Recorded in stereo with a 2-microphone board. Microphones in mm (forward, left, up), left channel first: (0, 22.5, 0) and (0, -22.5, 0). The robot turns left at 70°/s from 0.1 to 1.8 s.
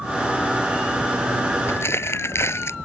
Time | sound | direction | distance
1.7 | crumpling | 85° left | ?